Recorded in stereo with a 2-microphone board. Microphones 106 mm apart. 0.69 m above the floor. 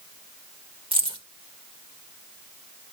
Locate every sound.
0.9 s keys jangling: 55° right (ahead or behind), 1.7 m